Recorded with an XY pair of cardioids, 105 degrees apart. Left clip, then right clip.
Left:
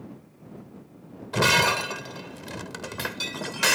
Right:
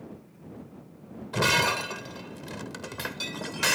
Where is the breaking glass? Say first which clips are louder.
Left 3 dB; 20° left.